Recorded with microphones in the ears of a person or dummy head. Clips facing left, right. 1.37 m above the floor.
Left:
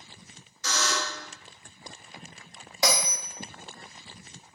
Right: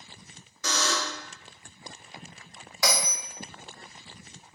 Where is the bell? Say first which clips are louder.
Left 2 dB; 25° left (ahead or behind), 0.6 m.